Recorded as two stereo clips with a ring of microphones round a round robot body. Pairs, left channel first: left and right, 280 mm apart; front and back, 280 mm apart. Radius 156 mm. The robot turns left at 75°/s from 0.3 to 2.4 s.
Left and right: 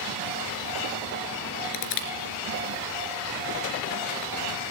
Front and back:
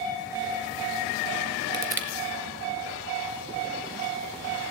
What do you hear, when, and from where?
1.7 s crushing: 115° left, 2.5 m; by 2.1 s 90° left, 2.5 m